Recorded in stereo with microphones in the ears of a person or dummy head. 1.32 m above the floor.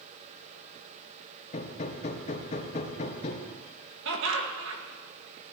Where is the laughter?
70° right (ahead or behind), 1.9 m.